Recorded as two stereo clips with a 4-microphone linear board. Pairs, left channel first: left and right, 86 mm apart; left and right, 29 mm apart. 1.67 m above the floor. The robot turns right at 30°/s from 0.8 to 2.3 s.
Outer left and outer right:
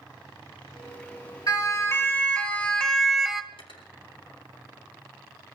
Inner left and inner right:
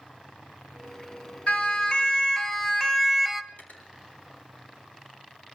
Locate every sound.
1.5 s a siren: 45° left (ahead or behind), 3.5 m; by 3.4 s 5° right (ahead or behind), 1.3 m
3.5 s cutlery clinking: 75° left (ahead or behind), 3.5 m